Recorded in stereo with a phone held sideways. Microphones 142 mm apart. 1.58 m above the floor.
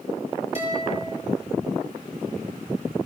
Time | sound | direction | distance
0.6 | a guitar | 40° left (ahead or behind) | 7.5 m